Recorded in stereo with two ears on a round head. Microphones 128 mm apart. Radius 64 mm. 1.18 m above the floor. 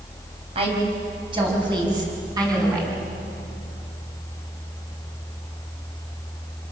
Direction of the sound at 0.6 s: 45° right (ahead or behind).